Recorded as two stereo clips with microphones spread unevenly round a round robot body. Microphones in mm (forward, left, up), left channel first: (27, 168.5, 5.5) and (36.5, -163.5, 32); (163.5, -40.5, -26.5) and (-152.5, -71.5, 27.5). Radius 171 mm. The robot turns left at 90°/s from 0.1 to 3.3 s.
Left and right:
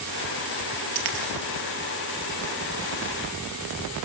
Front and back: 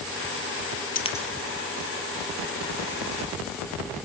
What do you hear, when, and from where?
0.9 s a dropped coin: 60° right, 3.5 m; by 1.3 s 85° right, 3.5 m